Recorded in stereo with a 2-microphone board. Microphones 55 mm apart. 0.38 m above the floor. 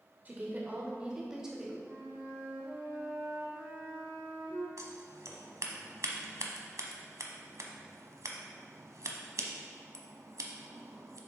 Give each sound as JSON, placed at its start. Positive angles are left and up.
{"t": 0.2, "sound": "a woman speaking", "side_deg": -30, "distance_m": 0.9}
{"t": 1.8, "sound": "a flute", "side_deg": -55, "distance_m": 2.0}
{"t": 4.8, "sound": "scissors", "side_deg": -65, "distance_m": 0.8}